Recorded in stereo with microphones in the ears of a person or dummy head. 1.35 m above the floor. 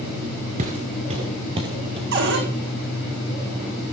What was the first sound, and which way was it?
Footsteps, 30° right (ahead or behind).